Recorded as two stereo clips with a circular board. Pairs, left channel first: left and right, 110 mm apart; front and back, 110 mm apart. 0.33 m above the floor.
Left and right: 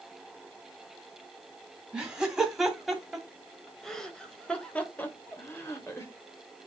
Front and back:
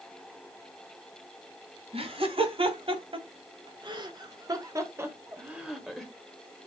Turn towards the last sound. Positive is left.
turn(degrees=80)